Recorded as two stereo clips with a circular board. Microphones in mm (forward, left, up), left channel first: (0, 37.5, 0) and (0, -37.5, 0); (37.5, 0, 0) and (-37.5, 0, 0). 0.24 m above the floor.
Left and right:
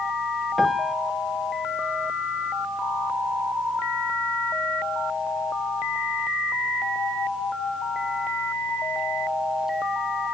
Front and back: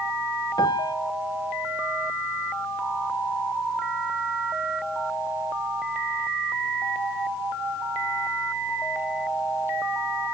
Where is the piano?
Straight ahead, 0.6 m.